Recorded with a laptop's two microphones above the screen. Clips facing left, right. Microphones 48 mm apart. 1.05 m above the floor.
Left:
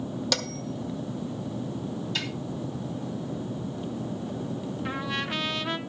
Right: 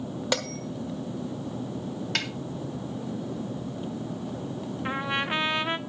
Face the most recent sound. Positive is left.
turn(degrees=-25)  # may be behind; listen again after turning